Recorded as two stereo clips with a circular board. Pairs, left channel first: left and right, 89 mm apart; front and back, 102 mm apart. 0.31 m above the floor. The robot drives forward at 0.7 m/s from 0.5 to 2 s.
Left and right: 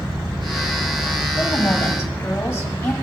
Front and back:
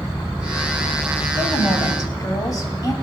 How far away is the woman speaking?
About 1.8 m.